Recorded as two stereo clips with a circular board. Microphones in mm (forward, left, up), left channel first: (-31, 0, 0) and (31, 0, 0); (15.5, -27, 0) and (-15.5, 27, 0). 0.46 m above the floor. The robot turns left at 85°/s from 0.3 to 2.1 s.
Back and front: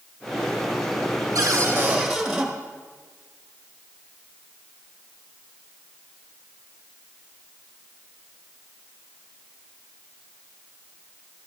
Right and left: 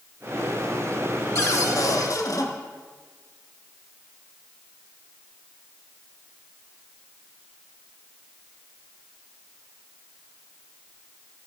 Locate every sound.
1.4 s a cupboard door: 20° right, 1.3 m; by 2.5 s 85° right, 1.3 m